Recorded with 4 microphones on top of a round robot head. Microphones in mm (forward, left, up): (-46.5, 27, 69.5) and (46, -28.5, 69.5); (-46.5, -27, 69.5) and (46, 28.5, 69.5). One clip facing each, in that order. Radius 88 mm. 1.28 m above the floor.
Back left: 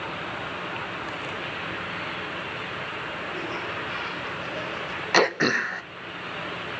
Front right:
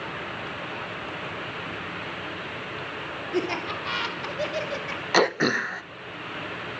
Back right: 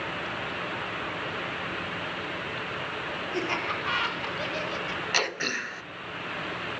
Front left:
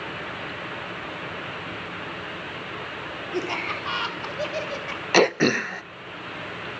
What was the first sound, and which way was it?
Laughter, 40° right.